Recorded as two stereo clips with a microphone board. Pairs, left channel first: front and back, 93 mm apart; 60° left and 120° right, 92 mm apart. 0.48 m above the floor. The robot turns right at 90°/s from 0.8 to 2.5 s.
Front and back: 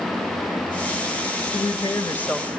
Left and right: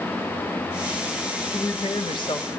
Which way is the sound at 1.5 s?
5° left.